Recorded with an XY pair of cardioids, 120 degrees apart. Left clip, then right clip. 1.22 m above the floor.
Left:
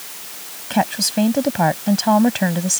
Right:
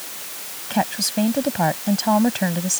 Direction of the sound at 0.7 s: 20° left.